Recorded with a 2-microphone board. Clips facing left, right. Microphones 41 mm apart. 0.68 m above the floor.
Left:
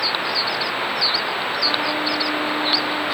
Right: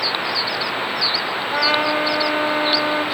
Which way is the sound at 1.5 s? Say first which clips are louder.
Right 7 dB; 70° right (ahead or behind).